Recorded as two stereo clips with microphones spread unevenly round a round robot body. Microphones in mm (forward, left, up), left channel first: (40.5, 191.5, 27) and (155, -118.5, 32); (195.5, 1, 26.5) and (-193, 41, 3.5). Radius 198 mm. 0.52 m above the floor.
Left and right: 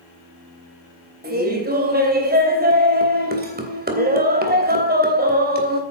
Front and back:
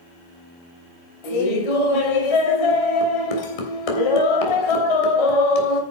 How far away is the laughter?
About 3.5 m.